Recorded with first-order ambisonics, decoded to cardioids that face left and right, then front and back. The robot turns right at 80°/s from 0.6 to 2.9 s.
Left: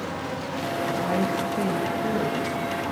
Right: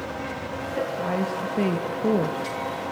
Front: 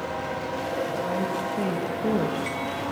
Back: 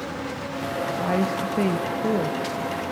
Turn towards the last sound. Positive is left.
turn(degrees=-40)